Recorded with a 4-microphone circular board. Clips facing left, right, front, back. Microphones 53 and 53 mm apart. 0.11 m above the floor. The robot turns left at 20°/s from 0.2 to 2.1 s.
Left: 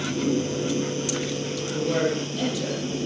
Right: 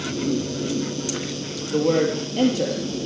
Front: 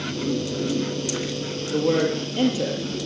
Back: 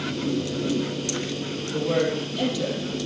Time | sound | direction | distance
1.7 | a man speaking | 45° right | 3 m